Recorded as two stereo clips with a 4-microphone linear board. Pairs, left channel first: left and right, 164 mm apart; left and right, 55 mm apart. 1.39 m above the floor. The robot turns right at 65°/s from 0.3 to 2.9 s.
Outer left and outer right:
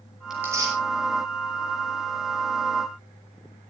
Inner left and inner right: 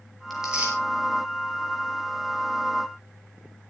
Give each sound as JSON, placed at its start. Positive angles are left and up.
{"t": 0.3, "sound": "tearing paper", "side_deg": 0, "distance_m": 7.5}